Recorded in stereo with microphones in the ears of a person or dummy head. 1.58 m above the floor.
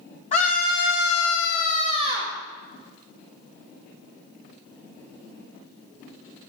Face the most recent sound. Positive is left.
turn(degrees=15)  # may be behind; listen again after turning